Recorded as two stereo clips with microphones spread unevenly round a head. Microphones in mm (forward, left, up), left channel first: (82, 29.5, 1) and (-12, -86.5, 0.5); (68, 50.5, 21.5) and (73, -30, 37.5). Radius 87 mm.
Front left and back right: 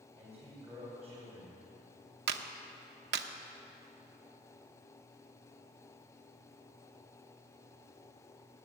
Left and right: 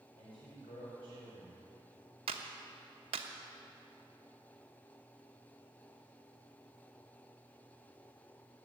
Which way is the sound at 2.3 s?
125° right.